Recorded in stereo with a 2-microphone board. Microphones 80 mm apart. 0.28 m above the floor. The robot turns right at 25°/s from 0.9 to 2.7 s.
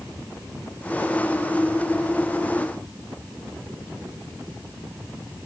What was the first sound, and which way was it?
Only background noise.